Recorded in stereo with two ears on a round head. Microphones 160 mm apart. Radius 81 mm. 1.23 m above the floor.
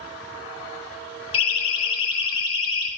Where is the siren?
30° left (ahead or behind), 3.5 m; by 2.9 s 25° left (ahead or behind), 4 m.